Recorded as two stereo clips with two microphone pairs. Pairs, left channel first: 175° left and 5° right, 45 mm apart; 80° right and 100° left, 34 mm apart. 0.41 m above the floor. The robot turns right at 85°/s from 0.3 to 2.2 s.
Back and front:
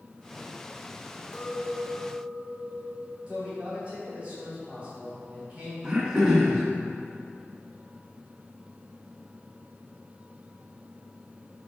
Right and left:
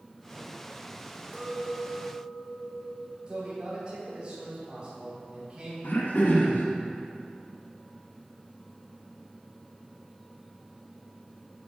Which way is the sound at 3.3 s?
60° left.